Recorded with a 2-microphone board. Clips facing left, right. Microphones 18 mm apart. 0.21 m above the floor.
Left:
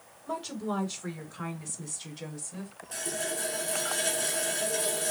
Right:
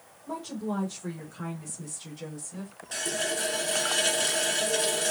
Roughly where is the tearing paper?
I don't hear tearing paper.